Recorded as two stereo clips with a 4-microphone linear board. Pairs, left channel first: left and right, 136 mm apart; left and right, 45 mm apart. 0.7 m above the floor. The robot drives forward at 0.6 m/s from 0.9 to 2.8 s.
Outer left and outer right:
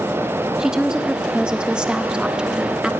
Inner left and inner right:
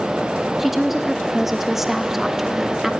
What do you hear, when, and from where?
0.6 s a woman speaking: 5° right (ahead or behind), 0.9 m